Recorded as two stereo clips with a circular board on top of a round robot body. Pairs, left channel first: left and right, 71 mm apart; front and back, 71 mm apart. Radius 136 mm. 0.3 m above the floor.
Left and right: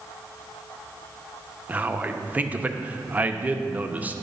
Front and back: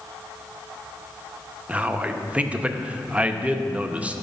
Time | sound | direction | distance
1.7 | a man speaking | 130° right | 0.9 m